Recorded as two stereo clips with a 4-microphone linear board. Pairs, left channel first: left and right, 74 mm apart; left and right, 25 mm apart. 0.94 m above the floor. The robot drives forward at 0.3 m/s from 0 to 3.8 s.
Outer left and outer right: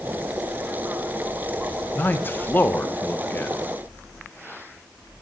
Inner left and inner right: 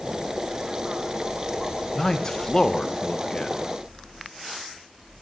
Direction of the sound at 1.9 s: 25° left (ahead or behind).